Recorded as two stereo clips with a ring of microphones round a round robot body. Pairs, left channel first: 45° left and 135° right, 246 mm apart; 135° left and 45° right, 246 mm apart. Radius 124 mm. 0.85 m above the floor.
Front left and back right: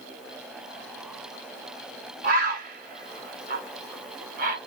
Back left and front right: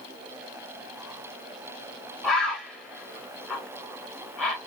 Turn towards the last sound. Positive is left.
turn(degrees=-140)